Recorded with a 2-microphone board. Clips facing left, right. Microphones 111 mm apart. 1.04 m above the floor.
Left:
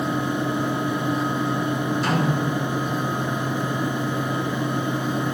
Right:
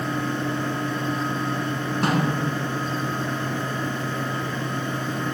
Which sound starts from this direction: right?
A snare drum, at 2.0 s.